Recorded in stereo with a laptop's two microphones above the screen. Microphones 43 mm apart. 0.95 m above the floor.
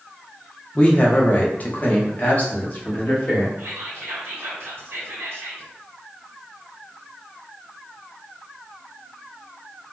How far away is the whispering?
About 1.4 m.